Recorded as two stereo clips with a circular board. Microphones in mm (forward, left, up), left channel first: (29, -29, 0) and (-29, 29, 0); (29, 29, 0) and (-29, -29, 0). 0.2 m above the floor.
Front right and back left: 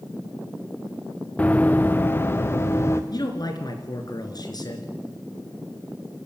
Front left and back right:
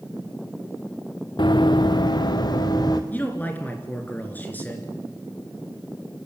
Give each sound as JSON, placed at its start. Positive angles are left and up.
{"t": 1.4, "sound": "running footsteps", "azimuth_deg": 25, "distance_m": 1.4}
{"t": 3.1, "sound": "a man speaking", "azimuth_deg": -20, "distance_m": 3.5}